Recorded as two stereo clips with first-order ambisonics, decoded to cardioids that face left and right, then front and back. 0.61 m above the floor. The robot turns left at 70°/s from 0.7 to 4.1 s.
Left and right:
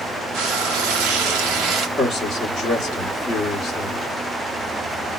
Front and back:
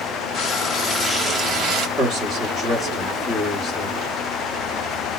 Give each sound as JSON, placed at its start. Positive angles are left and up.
{"t": 0.3, "sound": "frying", "azimuth_deg": -60, "distance_m": 1.0}
{"t": 2.0, "sound": "a man speaking", "azimuth_deg": 165, "distance_m": 1.4}